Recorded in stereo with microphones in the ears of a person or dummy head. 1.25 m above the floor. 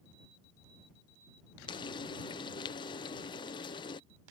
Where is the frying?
20° left (ahead or behind).